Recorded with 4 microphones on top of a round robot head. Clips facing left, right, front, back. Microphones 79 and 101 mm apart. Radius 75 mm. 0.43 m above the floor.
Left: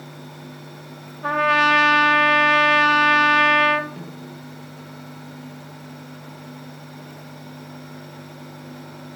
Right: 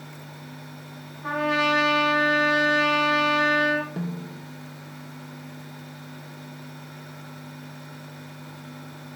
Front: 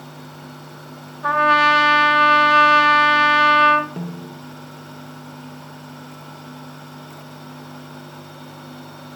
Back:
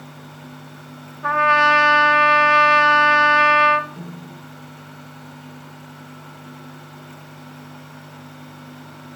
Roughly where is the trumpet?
Left.